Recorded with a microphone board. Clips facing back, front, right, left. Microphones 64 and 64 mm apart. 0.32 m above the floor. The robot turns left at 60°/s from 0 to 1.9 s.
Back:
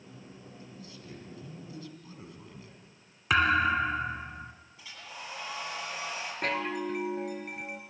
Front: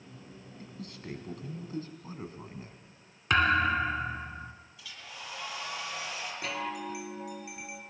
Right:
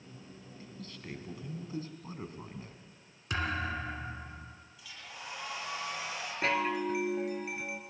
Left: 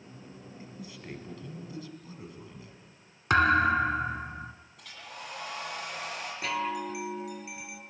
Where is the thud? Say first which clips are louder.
Even, left 12 dB; 95° left, 1.2 m.